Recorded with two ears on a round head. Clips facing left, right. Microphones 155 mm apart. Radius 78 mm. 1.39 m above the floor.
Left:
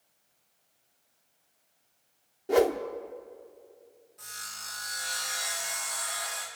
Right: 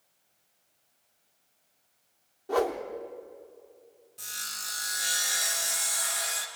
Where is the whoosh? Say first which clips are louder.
Left 4 dB; 25° left (ahead or behind), 1.0 m.